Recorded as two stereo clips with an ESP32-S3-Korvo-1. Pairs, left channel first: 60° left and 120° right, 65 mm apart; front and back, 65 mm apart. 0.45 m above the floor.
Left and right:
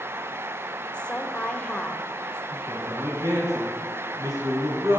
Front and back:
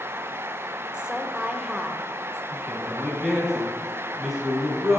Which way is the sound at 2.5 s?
100° right.